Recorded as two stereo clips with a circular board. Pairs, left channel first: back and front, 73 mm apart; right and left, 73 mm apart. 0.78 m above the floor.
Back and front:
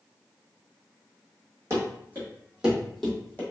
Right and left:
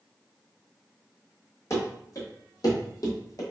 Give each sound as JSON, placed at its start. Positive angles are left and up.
{"t": 1.7, "sound": "running footsteps", "azimuth_deg": -45, "distance_m": 1.7}